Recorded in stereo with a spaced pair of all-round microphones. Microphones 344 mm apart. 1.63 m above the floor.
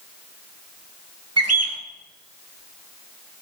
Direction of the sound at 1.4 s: 45° right (ahead or behind).